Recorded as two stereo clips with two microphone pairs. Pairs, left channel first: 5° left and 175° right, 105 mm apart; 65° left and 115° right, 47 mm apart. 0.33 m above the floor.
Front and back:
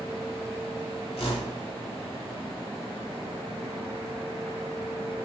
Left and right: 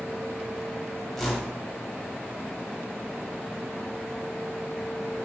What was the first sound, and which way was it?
A whoosh, 20° right.